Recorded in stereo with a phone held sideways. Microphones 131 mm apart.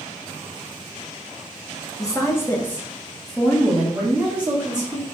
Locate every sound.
2.0 s a woman speaking: 25° left (ahead or behind), 0.8 m; by 5.0 s 10° right (ahead or behind), 1.8 m